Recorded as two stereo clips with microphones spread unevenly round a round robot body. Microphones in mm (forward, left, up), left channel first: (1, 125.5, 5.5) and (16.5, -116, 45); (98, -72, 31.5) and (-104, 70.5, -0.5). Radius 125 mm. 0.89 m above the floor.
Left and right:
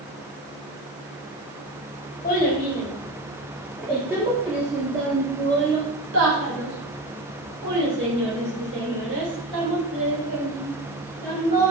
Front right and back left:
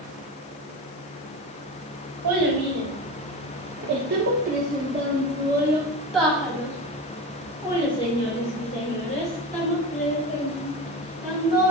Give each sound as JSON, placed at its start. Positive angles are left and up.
{"t": 2.2, "sound": "a child speaking", "azimuth_deg": 155, "distance_m": 1.7}